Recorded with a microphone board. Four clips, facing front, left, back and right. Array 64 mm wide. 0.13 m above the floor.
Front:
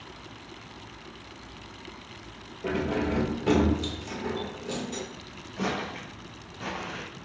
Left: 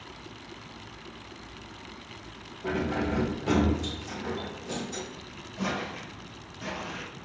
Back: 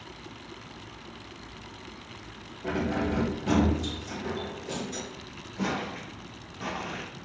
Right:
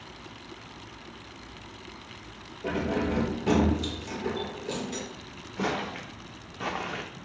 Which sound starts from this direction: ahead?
Keys jangling, at 2.6 s.